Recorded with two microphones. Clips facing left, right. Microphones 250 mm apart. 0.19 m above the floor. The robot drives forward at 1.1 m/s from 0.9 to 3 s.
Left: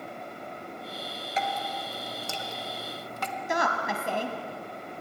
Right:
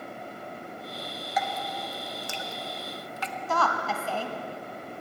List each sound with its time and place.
1.4 s dripping: 25° left (ahead or behind), 1.9 m; by 3.4 s 50° left (ahead or behind), 1.2 m
3.5 s a woman speaking: 15° left (ahead or behind), 1.1 m